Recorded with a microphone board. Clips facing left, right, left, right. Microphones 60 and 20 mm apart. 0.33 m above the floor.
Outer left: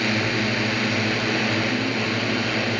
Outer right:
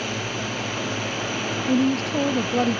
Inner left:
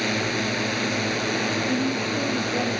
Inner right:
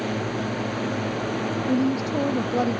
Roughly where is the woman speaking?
Right.